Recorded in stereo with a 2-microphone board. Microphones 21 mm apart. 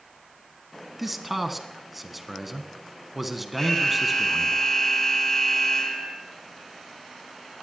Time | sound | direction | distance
1.0 | a man speaking | 5° right (ahead or behind) | 1.4 m
3.6 | an alarm | 25° left (ahead or behind) | 6.5 m